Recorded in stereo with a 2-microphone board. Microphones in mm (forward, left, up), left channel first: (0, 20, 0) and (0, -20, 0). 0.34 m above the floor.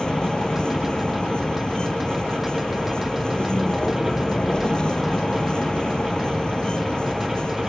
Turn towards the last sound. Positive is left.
turn(degrees=25)  # may be behind; listen again after turning